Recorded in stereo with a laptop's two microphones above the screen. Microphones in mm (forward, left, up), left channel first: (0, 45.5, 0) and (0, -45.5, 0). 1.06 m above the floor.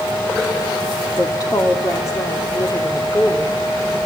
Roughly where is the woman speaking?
Left.